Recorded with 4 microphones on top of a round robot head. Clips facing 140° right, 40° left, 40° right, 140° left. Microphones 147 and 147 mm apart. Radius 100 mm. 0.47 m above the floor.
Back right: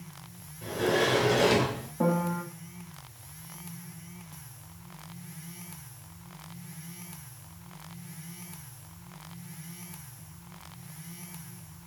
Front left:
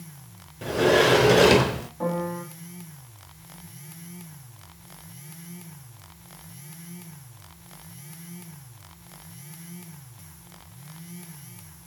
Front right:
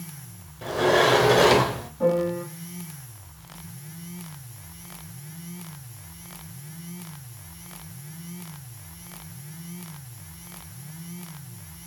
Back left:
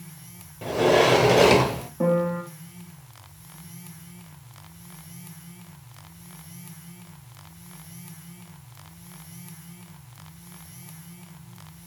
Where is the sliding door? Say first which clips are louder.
Front left 7 dB, back left 2 dB; 65° left, 0.7 m.